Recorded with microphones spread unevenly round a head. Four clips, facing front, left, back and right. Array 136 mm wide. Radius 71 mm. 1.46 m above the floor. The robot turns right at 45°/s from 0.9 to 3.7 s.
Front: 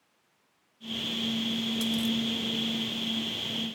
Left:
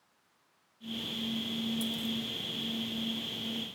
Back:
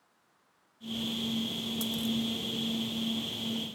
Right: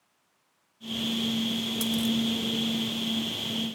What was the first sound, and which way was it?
A dropped coin, 90° right.